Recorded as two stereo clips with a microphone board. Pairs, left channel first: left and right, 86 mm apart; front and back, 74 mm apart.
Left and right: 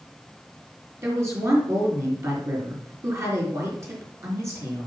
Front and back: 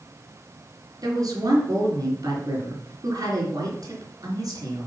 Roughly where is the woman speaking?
Behind right.